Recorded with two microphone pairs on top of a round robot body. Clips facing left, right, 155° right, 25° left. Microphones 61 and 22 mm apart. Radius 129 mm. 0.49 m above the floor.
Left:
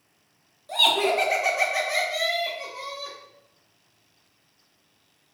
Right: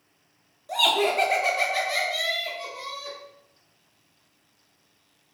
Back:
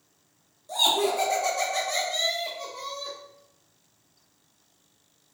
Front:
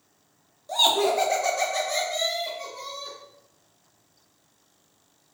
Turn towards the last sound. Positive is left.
turn(degrees=145)